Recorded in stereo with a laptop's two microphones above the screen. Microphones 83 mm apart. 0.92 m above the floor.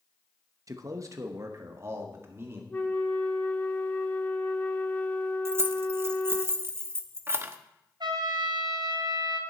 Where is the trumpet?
70° right (ahead or behind), 3.5 m.